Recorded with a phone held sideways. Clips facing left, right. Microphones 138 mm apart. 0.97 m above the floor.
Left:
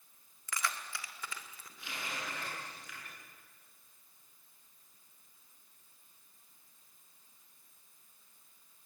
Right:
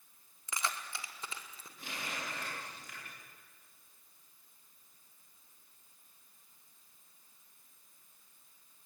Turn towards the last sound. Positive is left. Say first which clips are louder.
# even
turn(degrees=-45)  # may be behind; listen again after turning